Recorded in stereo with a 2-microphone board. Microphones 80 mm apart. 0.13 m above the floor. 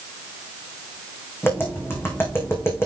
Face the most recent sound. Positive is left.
turn(degrees=30)  # may be behind; listen again after turning